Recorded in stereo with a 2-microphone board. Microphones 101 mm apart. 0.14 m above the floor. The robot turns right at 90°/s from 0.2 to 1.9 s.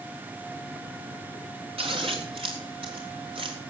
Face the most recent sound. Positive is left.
turn(degrees=-60)  # may be behind; listen again after turning